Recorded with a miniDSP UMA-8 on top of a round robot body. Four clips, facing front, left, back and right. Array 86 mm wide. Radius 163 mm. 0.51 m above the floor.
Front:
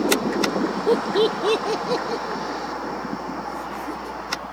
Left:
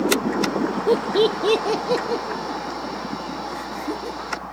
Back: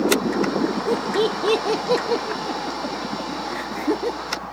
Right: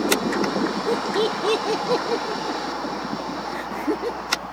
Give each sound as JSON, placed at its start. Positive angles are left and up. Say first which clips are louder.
{"t": 0.9, "sound": "laughter", "louder": "left 7 dB, front 5 dB", "azimuth_deg": 50, "distance_m": 1.0}